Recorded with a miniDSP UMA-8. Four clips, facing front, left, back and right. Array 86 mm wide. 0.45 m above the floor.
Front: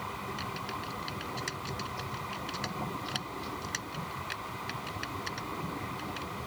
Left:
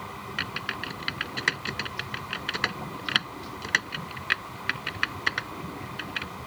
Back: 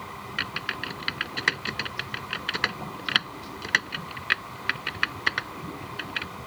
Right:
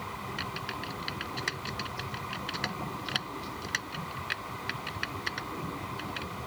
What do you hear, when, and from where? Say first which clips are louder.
0.4 s typing on a keyboard: left 3 dB, back 4 dB; 145° left